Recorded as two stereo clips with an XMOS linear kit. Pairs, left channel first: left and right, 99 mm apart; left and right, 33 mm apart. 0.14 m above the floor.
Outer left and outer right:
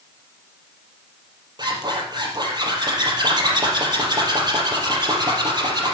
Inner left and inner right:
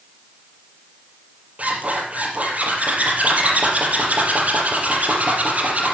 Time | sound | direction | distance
1.6 | a zipper | 45° right (ahead or behind) | 4.5 m